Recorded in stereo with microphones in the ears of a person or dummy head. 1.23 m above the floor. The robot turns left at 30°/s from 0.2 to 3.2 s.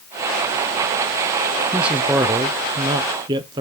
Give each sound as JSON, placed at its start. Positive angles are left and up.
{"t": 1.7, "sound": "a man speaking", "side_deg": -10, "distance_m": 0.6}